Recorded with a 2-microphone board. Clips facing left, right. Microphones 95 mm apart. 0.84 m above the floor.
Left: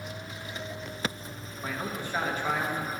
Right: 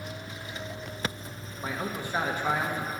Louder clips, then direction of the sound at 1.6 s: Right 1 dB; 15° right (ahead or behind).